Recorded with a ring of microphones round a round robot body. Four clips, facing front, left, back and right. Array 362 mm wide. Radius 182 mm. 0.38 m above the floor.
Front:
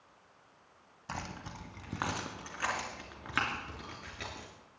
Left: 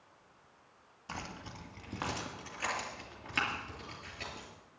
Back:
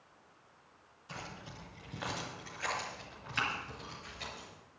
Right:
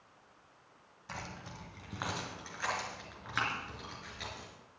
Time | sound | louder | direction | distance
1.1 | keys jangling | left 1 dB, front 5 dB | 15° left | 1.8 m